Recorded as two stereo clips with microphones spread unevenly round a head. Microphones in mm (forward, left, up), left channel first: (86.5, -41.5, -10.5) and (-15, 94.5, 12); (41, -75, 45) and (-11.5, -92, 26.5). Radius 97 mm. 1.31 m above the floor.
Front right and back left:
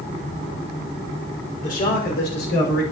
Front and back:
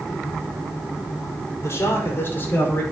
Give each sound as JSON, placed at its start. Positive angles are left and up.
{"t": 1.6, "sound": "a man speaking", "azimuth_deg": -20, "distance_m": 5.5}